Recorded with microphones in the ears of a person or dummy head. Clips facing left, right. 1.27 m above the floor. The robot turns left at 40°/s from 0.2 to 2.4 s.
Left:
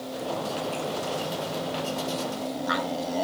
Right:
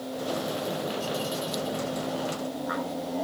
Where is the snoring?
I don't hear snoring.